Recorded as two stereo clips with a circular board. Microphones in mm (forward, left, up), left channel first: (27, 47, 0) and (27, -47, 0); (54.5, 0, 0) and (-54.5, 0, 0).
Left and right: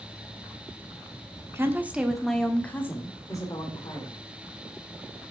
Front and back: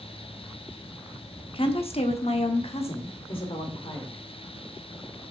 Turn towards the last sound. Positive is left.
turn(degrees=45)